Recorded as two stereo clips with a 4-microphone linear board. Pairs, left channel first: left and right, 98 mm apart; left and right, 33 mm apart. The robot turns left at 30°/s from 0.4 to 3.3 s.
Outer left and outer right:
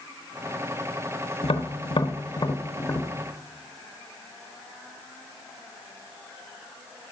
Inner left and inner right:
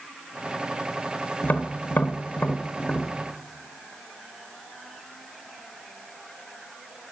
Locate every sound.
1.4 s tapping: 75° left (ahead or behind), 0.9 m; by 3.1 s 25° left (ahead or behind), 0.9 m